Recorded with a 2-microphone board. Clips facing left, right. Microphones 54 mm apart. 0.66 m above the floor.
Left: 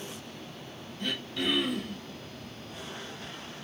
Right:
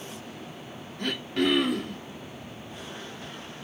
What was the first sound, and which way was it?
Throat clearing, 60° right (ahead or behind).